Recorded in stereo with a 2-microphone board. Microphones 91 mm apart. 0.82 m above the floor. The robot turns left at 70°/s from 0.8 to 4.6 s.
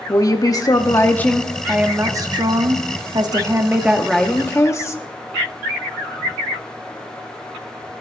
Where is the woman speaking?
50° left, 1.4 m; by 5.0 s 145° left, 1.4 m.